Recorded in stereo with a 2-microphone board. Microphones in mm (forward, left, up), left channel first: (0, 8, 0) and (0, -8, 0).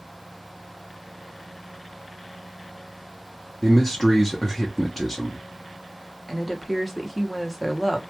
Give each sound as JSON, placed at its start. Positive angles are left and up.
{"t": 3.6, "sound": "a man speaking", "side_deg": 15, "distance_m": 0.6}
{"t": 6.3, "sound": "a woman speaking", "side_deg": 0, "distance_m": 0.7}